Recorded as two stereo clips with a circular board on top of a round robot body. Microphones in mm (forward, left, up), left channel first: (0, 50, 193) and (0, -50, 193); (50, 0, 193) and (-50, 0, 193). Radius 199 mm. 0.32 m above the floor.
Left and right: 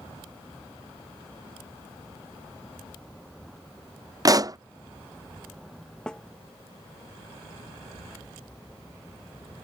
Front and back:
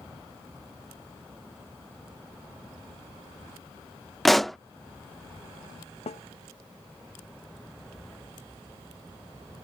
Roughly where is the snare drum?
Ahead.